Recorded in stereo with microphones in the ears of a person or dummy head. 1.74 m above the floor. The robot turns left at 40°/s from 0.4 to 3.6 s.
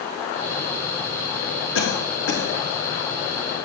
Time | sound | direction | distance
1.8 | a cough | 85° left | 3.5 m